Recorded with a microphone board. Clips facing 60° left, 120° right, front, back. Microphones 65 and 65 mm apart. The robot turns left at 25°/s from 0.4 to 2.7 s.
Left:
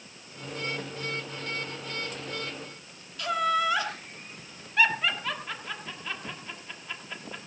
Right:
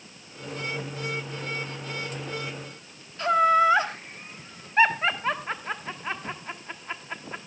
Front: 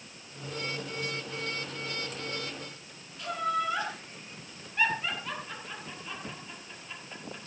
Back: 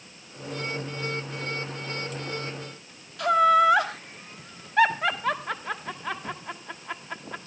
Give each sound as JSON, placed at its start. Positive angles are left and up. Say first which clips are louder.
{"t": 3.2, "sound": "laughter", "louder": "right 7 dB, back 12 dB", "azimuth_deg": -175, "distance_m": 1.3}